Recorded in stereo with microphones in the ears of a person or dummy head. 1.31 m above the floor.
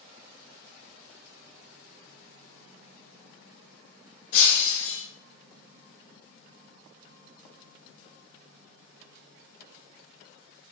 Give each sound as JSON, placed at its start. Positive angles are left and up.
{"t": 4.3, "sound": "breaking glass", "side_deg": 70, "distance_m": 2.5}